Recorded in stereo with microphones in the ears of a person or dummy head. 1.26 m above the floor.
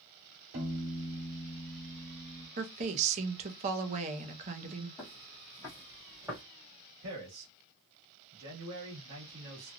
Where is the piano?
60° right (ahead or behind), 1.7 m.